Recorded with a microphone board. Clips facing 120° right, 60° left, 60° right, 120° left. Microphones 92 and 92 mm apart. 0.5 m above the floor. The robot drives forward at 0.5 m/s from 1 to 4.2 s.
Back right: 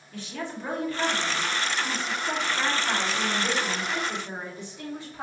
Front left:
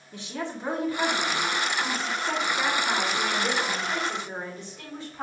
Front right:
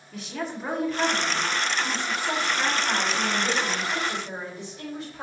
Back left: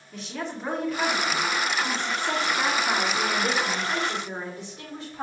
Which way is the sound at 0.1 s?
25° left.